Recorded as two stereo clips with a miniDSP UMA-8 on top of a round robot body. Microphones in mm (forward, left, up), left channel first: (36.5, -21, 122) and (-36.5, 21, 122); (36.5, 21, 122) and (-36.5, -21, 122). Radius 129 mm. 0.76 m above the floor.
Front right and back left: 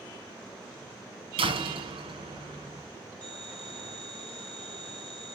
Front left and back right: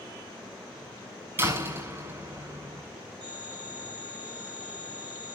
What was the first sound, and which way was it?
A door slam, 145° left.